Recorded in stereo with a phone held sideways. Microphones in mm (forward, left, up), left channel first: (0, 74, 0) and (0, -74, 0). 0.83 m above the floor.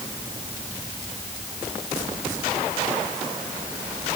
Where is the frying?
I don't hear frying.